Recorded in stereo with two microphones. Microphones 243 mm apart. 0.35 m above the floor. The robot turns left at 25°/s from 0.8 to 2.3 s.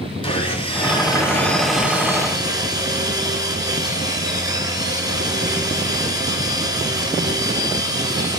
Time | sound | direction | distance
0.2 | sawing | 20° left | 2.5 m